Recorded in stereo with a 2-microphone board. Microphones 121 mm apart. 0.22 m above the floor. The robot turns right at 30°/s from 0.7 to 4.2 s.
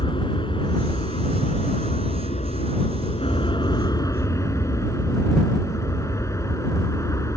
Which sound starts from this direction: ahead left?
An aircraft, at 0.0 s.